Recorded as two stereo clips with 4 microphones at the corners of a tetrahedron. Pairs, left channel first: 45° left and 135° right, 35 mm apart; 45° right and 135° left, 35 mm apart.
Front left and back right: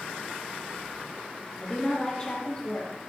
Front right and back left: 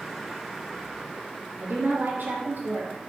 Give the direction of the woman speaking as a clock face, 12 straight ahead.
8 o'clock.